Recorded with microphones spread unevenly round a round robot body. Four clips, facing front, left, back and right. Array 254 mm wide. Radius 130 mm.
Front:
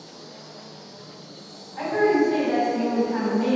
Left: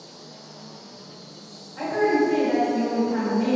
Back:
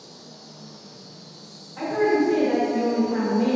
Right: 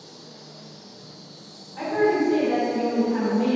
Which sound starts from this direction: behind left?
An insect, at 0.0 s.